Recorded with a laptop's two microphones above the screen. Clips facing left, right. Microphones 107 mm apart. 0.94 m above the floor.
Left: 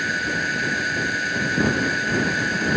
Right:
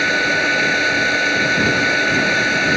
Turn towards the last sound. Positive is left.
turn(degrees=-85)